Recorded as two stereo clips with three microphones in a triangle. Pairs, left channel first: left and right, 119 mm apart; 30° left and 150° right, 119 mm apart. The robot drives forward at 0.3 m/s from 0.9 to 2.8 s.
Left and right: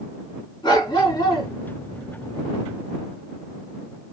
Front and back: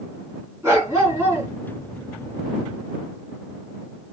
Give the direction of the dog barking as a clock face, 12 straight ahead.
7 o'clock.